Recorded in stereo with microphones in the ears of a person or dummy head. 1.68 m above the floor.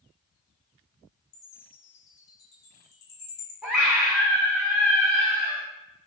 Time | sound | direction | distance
1.3 | a chime | 70° left (ahead or behind) | 1.3 m
3.6 | a scream | 5° right (ahead or behind) | 0.6 m